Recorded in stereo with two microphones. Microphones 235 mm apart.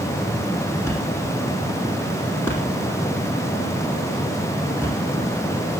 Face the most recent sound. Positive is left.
turn(degrees=10)  # may be behind; listen again after turning